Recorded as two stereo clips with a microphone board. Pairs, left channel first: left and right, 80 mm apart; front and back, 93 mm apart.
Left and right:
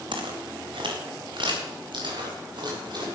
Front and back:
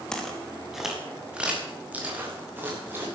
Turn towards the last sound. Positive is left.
turn(degrees=-110)